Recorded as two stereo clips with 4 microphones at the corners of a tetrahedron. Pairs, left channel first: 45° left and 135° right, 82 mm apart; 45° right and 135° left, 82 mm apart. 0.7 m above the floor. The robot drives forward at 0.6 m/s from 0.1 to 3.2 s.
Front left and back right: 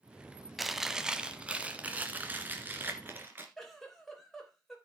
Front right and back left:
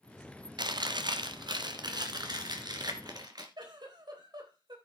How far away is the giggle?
About 3.5 m.